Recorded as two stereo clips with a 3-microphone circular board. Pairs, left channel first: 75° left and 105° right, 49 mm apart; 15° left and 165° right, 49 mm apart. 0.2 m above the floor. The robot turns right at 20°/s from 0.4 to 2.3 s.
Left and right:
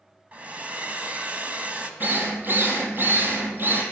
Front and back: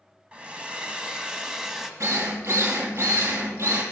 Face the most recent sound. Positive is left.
turn(degrees=-150)